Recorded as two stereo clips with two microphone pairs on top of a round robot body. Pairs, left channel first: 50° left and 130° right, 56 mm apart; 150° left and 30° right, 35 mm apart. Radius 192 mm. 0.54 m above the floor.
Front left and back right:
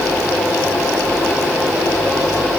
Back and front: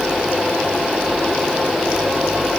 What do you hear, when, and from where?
Only background noise.